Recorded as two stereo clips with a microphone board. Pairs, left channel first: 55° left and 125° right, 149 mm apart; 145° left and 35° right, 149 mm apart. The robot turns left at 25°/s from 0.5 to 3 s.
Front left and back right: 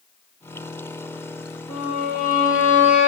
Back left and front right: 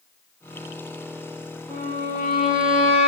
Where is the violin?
45° left, 5.5 m; by 3.1 s 10° left, 5.5 m.